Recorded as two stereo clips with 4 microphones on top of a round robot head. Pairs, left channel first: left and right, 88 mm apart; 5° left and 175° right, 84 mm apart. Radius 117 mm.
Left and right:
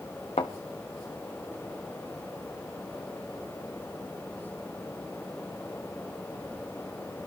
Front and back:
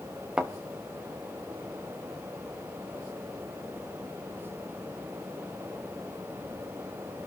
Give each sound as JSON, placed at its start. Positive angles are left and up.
{"t": 0.4, "sound": "a thud", "azimuth_deg": 110, "distance_m": 0.9}